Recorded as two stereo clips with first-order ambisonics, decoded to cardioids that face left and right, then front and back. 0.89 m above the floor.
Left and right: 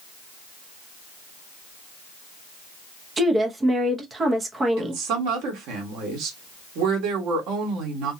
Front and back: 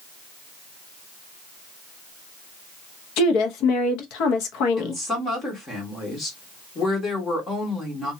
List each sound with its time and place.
3.2 s a woman speaking: 15° right, 0.7 m
4.8 s a woman speaking: 70° right, 1.5 m